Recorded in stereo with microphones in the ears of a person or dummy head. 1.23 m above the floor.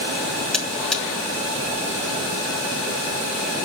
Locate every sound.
0.5 s a buzzer: 5° left (ahead or behind), 1.6 m